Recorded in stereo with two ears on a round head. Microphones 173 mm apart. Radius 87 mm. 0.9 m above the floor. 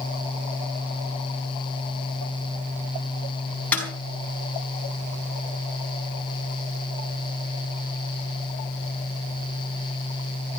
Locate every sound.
3.7 s a snare drum: 5° left (ahead or behind), 5 m